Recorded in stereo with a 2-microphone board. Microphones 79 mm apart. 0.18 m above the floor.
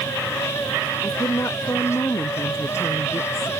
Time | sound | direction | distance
1.0 | a woman speaking | 35° left (ahead or behind) | ?